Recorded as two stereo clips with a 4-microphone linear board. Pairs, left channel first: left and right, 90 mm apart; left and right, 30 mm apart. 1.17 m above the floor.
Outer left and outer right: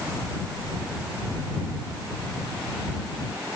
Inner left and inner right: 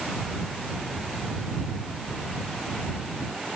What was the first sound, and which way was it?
Only background noise.